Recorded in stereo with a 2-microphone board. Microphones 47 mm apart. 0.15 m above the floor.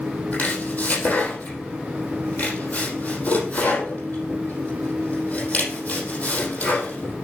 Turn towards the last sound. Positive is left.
turn(degrees=30)  # may be behind; listen again after turning